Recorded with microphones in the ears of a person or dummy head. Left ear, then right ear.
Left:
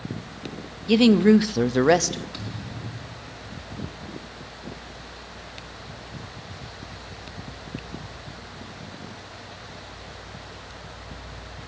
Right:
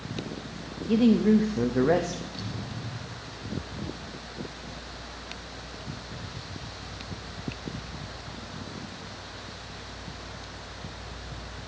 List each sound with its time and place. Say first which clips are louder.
0.9 s a woman speaking: left 6 dB; 55° left (ahead or behind), 0.5 m; by 2.2 s 60° left (ahead or behind), 0.8 m
2.3 s a thud: left 1 dB; 40° left (ahead or behind), 4 m